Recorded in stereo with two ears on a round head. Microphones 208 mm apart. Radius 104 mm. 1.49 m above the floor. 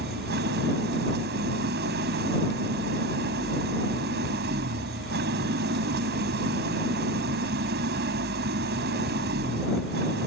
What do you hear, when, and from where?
0.0 s an engine running: 45° right (ahead or behind)